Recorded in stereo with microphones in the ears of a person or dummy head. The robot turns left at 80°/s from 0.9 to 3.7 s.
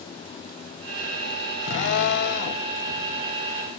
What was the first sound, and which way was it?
A drill, 140° left.